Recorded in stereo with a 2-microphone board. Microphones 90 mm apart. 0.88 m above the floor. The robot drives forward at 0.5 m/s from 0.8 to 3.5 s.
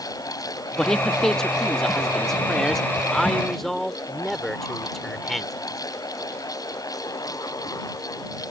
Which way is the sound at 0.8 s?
10° left (ahead or behind).